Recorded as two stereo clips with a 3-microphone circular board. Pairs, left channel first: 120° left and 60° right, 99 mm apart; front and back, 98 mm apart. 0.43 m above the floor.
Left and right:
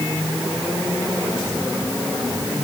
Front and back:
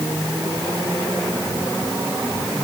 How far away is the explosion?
I don't hear an explosion.